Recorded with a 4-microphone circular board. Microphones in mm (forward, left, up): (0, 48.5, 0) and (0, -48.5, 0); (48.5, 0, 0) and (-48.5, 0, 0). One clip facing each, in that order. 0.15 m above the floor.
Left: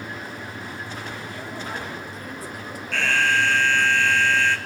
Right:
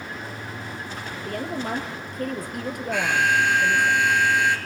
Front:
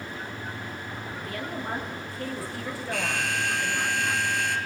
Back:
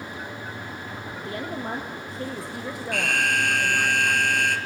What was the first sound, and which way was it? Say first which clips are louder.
A woman speaking: right 5 dB, back 3 dB; 120° right.